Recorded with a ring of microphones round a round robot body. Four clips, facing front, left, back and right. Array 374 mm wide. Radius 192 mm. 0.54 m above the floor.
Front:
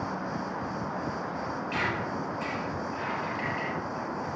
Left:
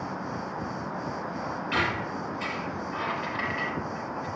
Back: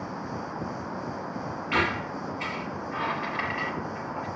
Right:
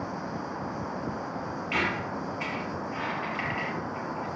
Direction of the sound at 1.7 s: 165° left.